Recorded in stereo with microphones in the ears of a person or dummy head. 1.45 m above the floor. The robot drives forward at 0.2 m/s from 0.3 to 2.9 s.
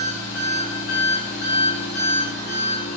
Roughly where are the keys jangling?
I don't hear keys jangling.